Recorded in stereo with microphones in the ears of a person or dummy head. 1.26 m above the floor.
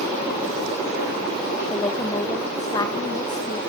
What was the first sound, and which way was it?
A woman speaking, 20° left (ahead or behind).